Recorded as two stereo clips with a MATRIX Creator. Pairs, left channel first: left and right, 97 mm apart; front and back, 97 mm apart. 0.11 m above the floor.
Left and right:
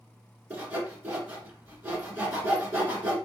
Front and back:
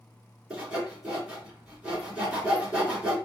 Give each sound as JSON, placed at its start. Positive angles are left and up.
{"t": 0.5, "sound": "sawing", "azimuth_deg": -125, "distance_m": 1.6}